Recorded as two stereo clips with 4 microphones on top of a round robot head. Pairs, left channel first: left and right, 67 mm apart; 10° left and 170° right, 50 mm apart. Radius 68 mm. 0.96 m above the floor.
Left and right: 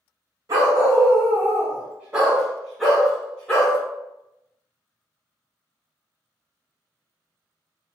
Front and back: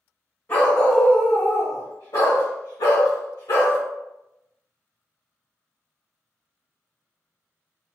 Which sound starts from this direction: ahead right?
A dog barking, at 0.5 s.